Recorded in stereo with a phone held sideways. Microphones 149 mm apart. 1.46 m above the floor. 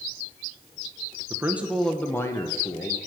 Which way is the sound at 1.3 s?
20° right (ahead or behind).